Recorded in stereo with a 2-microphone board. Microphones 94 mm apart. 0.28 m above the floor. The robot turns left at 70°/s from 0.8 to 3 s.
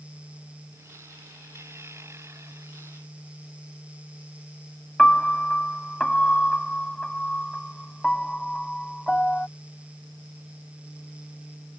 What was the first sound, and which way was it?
A piano, 10° left (ahead or behind).